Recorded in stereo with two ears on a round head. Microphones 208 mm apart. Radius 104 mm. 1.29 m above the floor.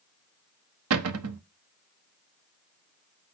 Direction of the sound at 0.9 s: 70° right (ahead or behind).